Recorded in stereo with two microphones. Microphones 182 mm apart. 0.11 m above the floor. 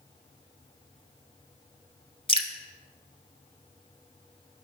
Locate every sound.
2.3 s dripping: 35° right (ahead or behind), 0.6 m